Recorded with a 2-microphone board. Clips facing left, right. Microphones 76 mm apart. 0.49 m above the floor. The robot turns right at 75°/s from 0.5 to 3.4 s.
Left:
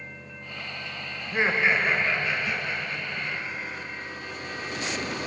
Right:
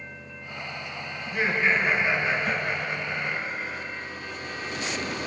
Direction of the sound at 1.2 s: 130° left.